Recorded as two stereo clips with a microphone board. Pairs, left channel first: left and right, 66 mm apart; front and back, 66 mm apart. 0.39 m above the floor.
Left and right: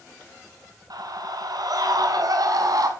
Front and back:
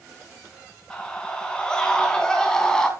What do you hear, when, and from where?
0.9 s a scream: 75° right, 4.5 m; by 2.9 s 80° right, 3.5 m